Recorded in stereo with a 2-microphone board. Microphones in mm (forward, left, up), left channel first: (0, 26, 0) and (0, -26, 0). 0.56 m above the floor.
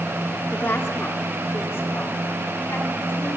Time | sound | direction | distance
0.5 | a woman speaking | 30° left (ahead or behind) | 0.9 m